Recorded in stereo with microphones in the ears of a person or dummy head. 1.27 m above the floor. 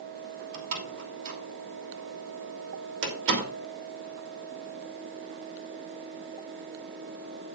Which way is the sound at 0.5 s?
75° right (ahead or behind).